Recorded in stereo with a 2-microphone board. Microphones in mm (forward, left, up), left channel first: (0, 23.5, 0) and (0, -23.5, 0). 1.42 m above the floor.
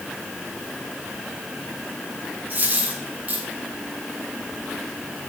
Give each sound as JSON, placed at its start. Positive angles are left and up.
{"t": 2.5, "sound": "a dropped coin", "side_deg": -35, "distance_m": 7.5}